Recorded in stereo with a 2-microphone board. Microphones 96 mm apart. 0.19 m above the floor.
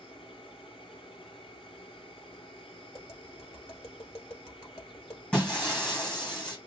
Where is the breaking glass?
10° left (ahead or behind), 1.6 m.